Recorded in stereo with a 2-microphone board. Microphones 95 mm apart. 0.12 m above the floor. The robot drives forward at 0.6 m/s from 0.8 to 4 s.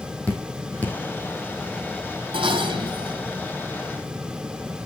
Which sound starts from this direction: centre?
Dripping, at 0.3 s.